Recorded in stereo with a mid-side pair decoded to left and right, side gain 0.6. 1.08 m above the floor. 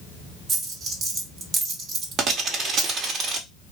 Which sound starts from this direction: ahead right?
A dropped coin, at 0.5 s.